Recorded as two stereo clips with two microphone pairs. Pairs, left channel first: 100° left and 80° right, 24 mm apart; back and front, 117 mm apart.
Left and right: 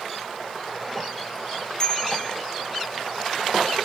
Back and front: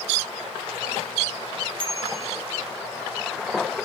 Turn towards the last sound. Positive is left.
turn(degrees=45)